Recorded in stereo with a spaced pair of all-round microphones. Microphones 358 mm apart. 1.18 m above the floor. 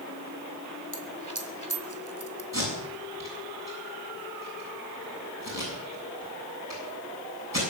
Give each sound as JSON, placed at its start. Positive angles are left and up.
{"t": 0.9, "sound": "a dropped coin", "side_deg": -55, "distance_m": 1.8}
{"t": 2.5, "sound": "tape being pulled", "side_deg": 45, "distance_m": 7.0}